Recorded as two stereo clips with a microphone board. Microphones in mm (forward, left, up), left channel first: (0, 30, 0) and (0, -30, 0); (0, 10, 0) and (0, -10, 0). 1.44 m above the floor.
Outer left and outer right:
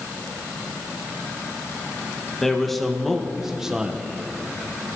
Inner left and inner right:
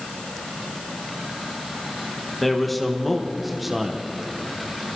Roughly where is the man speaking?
Centre.